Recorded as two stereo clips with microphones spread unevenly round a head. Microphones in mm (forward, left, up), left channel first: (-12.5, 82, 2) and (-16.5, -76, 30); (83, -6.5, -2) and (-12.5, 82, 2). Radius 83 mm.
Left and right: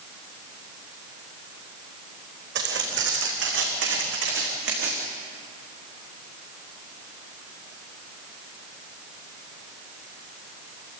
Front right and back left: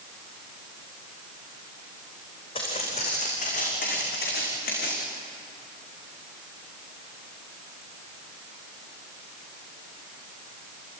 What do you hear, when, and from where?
2.5 s footsteps: 105° right, 5 m; by 5.0 s 65° right, 6 m